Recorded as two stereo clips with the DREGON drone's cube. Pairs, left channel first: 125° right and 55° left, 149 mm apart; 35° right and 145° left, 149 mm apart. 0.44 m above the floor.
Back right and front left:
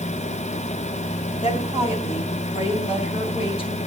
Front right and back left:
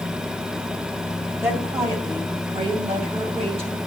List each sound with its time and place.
1.4 s a woman speaking: 145° right, 2.0 m; by 3.8 s 175° right, 3 m